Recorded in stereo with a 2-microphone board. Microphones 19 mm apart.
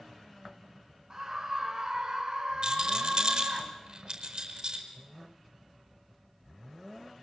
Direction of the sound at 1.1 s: 35° right (ahead or behind).